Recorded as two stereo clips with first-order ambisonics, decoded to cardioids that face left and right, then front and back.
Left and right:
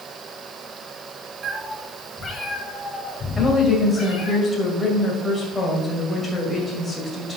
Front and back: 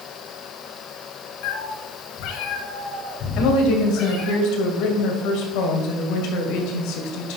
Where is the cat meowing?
30° right, 0.8 m; by 4.4 s 40° left, 3.5 m.